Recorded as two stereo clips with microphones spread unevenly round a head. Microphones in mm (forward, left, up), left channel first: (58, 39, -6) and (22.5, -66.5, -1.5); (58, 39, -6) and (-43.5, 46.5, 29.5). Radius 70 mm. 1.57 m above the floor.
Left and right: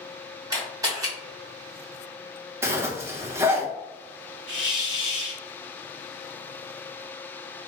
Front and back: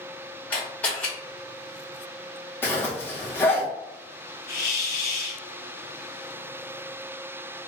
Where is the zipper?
105° right, 0.7 m.